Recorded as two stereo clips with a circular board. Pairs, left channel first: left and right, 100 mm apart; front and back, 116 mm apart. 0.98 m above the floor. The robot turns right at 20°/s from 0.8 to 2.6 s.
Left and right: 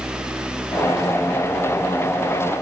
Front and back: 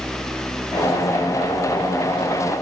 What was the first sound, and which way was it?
Only background noise.